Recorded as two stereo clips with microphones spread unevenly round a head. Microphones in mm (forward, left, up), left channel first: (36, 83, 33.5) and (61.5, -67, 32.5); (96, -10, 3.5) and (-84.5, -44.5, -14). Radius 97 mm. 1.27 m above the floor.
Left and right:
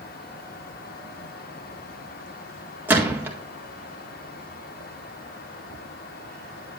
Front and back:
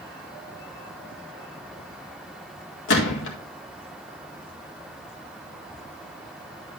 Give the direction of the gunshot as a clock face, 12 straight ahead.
12 o'clock.